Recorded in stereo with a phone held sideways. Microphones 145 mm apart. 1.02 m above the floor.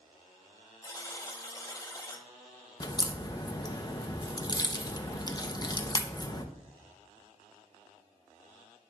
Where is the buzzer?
25° left (ahead or behind), 1.0 m.